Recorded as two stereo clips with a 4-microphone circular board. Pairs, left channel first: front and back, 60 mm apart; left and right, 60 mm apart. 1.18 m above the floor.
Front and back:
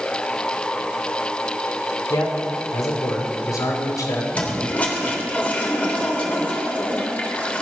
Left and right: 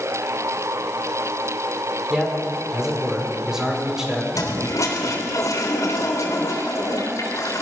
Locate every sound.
2.1 s a man speaking: 5° right, 5 m
4.3 s a toilet flushing: 65° left, 3.5 m